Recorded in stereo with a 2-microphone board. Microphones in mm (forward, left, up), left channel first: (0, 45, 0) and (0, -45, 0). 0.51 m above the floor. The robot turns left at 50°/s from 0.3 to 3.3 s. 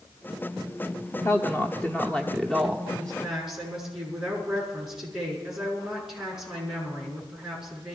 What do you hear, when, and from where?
1.2 s a woman speaking: 70° left, 0.9 m; by 2.8 s 10° right, 0.9 m
2.9 s a woman speaking: 15° left (ahead or behind), 6 m; by 8.0 s 5° right (ahead or behind), 6 m